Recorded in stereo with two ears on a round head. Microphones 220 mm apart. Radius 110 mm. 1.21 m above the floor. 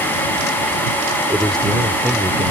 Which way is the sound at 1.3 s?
5° left (ahead or behind).